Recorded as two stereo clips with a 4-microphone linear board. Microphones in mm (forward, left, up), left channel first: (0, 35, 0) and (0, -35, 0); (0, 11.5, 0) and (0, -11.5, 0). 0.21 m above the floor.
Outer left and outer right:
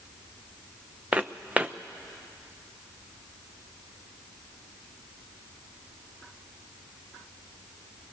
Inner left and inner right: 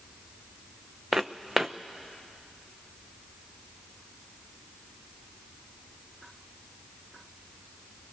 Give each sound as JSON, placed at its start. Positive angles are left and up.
{"t": 1.1, "sound": "footsteps", "side_deg": -15, "distance_m": 0.7}